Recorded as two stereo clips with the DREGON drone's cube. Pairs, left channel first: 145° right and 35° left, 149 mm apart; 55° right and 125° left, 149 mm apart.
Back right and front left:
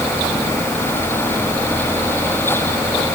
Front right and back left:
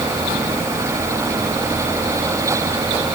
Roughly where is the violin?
No violin in this recording.